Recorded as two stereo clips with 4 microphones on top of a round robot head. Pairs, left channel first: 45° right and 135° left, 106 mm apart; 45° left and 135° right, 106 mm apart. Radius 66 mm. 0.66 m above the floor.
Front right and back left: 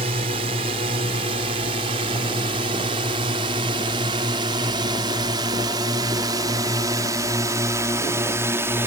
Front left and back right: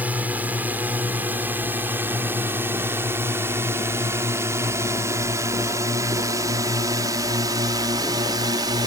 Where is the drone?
150° left; by 8.9 s 165° right.